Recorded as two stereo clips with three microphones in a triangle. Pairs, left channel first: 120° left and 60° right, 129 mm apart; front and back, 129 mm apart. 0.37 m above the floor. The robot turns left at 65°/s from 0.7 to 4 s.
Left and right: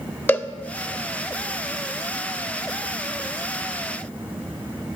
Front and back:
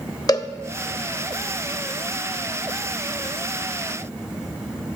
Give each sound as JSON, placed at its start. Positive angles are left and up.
{"t": 0.3, "sound": "a cowbell", "azimuth_deg": 50, "distance_m": 0.7}